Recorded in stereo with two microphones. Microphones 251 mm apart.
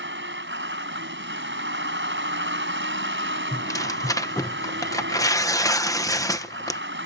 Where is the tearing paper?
15° left (ahead or behind).